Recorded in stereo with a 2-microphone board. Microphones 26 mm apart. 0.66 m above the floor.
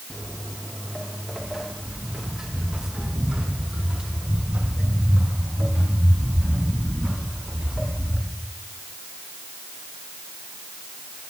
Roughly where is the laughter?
No laughter in this recording.